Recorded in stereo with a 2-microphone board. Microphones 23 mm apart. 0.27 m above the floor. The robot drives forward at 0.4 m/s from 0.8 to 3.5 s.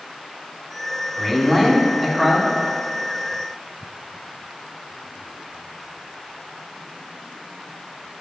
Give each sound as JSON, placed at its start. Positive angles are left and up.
{"t": 1.2, "sound": "a man speaking", "side_deg": 10, "distance_m": 1.8}